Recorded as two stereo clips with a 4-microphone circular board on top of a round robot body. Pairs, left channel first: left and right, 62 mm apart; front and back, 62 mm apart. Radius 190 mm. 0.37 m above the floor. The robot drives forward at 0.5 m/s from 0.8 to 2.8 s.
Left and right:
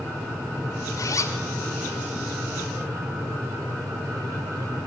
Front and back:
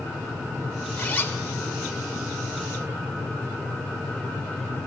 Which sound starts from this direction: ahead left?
A zipper, at 1.0 s.